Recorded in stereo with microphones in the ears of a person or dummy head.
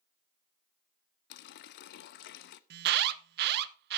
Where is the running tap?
55° left (ahead or behind), 0.7 m.